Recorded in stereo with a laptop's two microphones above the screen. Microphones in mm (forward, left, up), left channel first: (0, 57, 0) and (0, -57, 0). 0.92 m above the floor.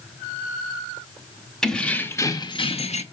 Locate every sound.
1.6 s keys jangling: 5° left (ahead or behind), 0.8 m; by 3.0 s 75° left (ahead or behind), 0.6 m